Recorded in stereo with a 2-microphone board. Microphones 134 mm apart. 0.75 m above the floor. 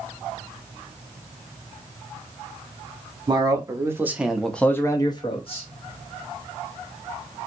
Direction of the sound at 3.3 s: 30° right (ahead or behind).